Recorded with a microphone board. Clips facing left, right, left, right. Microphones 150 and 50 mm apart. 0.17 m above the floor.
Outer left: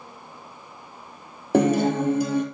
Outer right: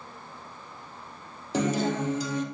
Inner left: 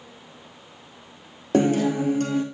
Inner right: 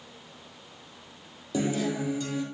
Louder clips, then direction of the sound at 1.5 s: Outer left 7 dB, inner left 8 dB; 55° left (ahead or behind).